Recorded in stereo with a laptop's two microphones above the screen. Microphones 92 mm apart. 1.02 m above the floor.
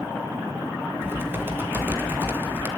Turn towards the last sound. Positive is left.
turn(degrees=-25)  # may be behind; listen again after turning